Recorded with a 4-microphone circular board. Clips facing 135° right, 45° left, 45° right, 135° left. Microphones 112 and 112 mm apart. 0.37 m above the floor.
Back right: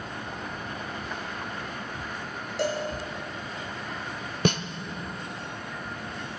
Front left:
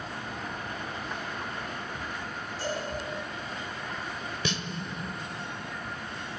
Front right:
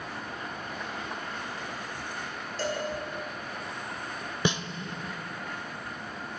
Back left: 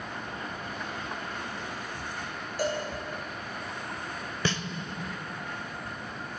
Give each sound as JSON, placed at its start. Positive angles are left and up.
{"t": 2.6, "sound": "a cowbell", "azimuth_deg": -150, "distance_m": 3.0}
{"t": 4.5, "sound": "a snare drum", "azimuth_deg": -115, "distance_m": 0.6}